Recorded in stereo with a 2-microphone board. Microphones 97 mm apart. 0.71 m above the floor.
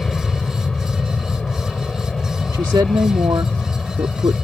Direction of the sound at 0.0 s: 5° left (ahead or behind).